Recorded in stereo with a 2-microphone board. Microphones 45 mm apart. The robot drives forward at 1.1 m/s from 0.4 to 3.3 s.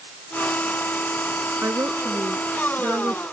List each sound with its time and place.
1.6 s a woman speaking: 90° right; by 3.2 s 80° right